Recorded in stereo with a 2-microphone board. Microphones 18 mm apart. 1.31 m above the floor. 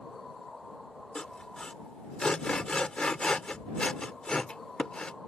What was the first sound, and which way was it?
Sawing, 55° left (ahead or behind).